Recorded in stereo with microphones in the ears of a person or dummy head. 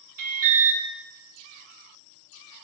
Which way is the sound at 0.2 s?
45° right (ahead or behind).